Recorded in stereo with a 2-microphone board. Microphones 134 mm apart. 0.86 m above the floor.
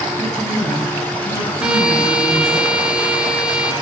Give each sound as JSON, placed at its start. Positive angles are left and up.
{"t": 0.2, "sound": "a woman speaking", "side_deg": 55, "distance_m": 5.0}
{"t": 1.6, "sound": "a violin", "side_deg": -5, "distance_m": 1.8}